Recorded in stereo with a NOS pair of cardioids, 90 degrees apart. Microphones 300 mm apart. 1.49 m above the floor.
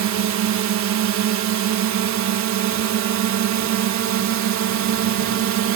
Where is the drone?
70° right.